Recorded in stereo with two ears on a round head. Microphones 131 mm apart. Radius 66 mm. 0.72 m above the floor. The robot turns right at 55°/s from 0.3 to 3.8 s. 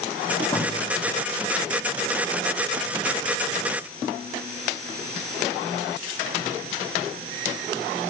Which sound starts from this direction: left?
A thud, at 0.5 s.